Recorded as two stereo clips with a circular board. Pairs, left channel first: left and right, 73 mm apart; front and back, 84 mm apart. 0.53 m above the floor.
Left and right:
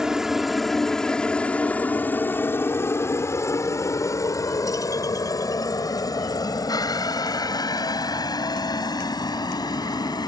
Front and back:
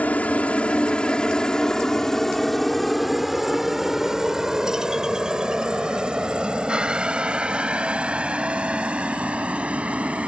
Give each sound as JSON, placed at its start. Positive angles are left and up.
{"t": 0.0, "sound": "a helicopter", "azimuth_deg": -25}